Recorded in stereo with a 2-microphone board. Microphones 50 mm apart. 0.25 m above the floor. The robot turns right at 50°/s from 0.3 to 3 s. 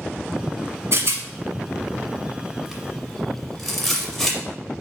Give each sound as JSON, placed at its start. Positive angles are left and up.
{"t": 0.9, "sound": "a rattle", "side_deg": -55, "distance_m": 0.9}